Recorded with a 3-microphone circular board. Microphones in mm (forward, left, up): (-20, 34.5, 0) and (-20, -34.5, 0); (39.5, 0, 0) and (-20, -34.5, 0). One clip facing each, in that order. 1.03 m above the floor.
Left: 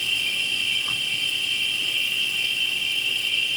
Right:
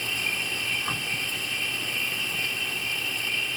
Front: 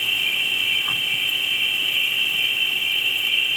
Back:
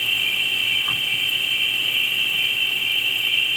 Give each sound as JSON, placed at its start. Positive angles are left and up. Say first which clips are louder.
{"t": 0.0, "sound": "an insect", "louder": "left 2 dB, even", "azimuth_deg": -60}